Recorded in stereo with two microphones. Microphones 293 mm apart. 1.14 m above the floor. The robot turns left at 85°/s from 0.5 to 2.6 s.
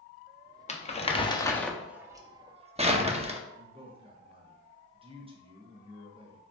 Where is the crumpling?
25° left (ahead or behind), 0.6 m; by 3.4 s 20° right (ahead or behind), 0.6 m.